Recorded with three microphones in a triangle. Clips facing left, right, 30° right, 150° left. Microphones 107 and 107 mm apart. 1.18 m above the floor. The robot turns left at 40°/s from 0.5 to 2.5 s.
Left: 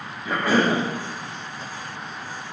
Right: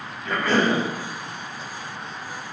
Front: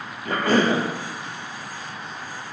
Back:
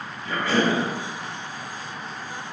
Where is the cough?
10° left, 0.7 m; by 0.8 s 5° right, 0.7 m.